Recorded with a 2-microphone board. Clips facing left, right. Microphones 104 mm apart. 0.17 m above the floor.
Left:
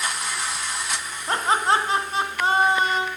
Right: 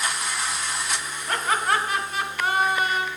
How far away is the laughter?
About 1.1 m.